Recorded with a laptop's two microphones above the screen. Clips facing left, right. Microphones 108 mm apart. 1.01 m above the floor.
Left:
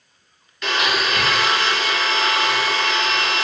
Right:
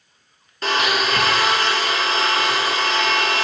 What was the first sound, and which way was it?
A blender, 35° right (ahead or behind).